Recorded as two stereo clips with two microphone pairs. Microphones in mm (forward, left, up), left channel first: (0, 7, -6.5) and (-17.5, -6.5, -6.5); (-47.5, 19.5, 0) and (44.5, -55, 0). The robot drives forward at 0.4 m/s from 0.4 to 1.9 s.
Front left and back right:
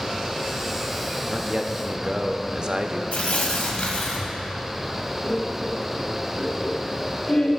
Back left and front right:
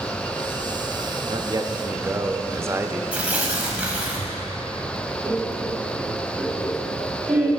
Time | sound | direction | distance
1.3 | a man speaking | 70° right | 0.6 m
3.1 | tearing paper | 40° left | 1.7 m
5.2 | laughter | 30° left | 2 m